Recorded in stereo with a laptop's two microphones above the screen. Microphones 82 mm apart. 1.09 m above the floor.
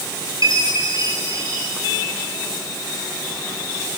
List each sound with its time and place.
0.4 s a chime: 45° right (ahead or behind), 9 m